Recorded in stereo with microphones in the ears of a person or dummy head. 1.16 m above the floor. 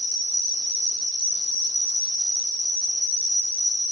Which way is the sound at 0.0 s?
10° left (ahead or behind).